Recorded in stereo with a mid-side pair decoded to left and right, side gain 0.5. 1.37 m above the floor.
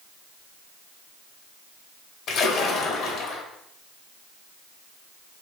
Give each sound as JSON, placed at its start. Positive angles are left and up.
{"t": 2.3, "sound": "a splash", "azimuth_deg": 70, "distance_m": 1.1}